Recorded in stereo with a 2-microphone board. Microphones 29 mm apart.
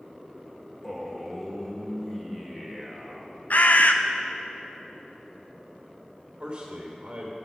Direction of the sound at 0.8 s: 10° left (ahead or behind).